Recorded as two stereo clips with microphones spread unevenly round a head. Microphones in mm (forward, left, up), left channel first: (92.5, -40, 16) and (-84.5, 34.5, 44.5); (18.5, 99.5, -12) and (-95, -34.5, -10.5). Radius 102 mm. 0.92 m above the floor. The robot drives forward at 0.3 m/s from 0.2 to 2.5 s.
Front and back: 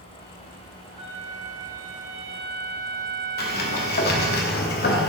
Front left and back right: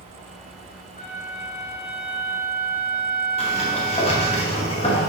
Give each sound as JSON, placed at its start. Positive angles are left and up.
{"t": 1.0, "sound": "a flute", "azimuth_deg": 95, "distance_m": 1.2}
{"t": 3.4, "sound": "a sliding door", "azimuth_deg": -10, "distance_m": 1.1}